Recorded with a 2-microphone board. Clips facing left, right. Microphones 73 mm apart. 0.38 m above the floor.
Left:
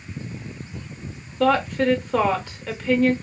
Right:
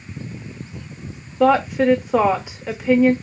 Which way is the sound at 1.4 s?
10° right (ahead or behind).